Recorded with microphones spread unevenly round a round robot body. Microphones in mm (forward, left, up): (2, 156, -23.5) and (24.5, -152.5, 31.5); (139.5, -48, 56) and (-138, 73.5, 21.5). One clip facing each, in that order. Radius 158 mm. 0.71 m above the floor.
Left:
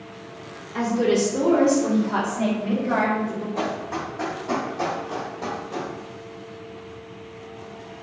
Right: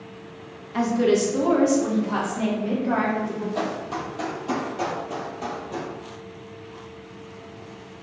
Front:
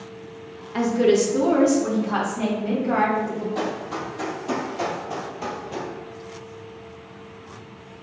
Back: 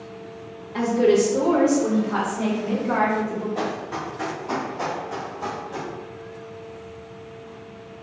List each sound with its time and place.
0.7 s a woman speaking: 75° right, 1.0 m; by 3.5 s 45° right, 2 m
3.5 s running footsteps: 65° right, 1.7 m; by 5.9 s 15° right, 1.3 m